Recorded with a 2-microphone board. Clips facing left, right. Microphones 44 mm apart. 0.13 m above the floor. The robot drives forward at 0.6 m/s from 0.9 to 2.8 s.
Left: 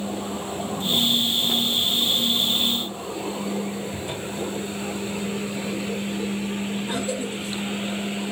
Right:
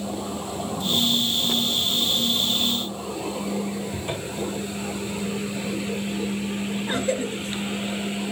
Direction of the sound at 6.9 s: 45° right (ahead or behind).